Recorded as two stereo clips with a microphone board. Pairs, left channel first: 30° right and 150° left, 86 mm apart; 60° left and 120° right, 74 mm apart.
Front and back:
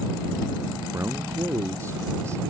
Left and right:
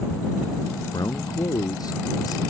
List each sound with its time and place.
0.9 s a man speaking: 90° left